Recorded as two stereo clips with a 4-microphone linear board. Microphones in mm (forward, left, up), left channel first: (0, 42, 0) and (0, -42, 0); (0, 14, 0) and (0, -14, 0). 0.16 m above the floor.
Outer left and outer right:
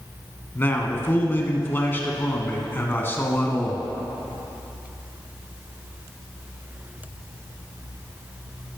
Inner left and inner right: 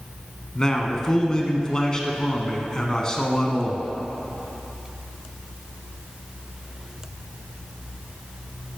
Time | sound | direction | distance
0.6 | a man speaking | 25° left (ahead or behind) | 1.3 m